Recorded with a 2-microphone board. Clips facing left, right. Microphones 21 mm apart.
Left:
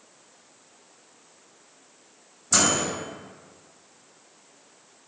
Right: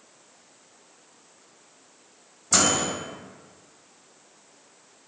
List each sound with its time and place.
2.5 s a microwave: 30° right (ahead or behind), 0.8 m